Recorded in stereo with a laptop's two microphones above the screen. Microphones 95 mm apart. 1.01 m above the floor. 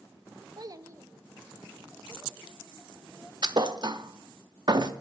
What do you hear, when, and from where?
0.6 s a child speaking: 45° right (ahead or behind), 0.7 m; by 3.3 s 20° right (ahead or behind), 3.5 m
3.4 s a thud: 50° right (ahead or behind), 0.6 m